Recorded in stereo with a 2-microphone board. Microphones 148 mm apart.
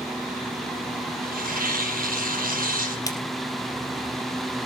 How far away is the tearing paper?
About 6 m.